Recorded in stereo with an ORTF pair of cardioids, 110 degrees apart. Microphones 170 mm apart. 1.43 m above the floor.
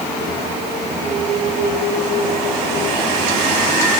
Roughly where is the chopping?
I don't hear chopping.